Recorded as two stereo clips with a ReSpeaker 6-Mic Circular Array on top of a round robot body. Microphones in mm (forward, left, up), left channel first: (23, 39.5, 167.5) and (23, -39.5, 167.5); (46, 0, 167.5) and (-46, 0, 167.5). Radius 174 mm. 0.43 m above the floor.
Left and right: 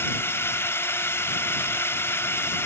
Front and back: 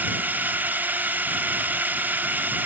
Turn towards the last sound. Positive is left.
turn(degrees=120)